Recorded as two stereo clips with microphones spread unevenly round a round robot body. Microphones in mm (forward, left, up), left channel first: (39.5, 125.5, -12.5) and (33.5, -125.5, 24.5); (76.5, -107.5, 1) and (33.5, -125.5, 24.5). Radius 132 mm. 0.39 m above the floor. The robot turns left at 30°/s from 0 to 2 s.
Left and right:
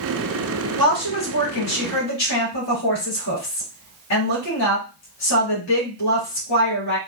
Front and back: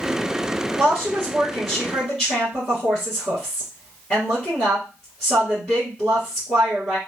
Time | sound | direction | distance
0.8 | a woman speaking | 120° left | 3 m